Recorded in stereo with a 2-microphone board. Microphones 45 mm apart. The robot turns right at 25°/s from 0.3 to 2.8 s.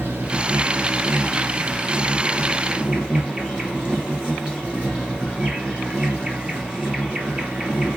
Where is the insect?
85° right, 2 m; by 8.0 s 25° right, 2 m.